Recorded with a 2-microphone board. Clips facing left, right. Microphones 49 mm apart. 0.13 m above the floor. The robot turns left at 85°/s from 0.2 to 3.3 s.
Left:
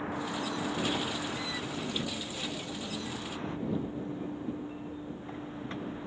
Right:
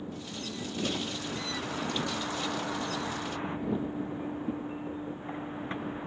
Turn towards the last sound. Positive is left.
turn(degrees=-155)